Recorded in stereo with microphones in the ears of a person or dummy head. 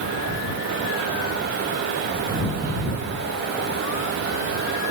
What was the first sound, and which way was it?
Only background noise.